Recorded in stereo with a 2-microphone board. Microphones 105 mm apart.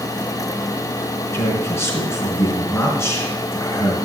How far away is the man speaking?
About 3 m.